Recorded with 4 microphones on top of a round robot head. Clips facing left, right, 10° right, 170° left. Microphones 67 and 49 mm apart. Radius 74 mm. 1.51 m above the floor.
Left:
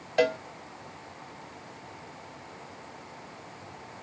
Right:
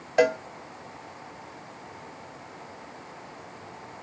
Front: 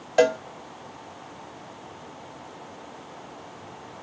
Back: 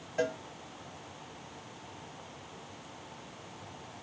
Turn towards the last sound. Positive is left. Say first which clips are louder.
# right 3 dB, front 13 dB
turn(degrees=-20)